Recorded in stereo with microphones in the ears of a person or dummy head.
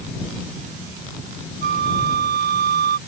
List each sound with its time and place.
1.6 s a flute: 60° right (ahead or behind)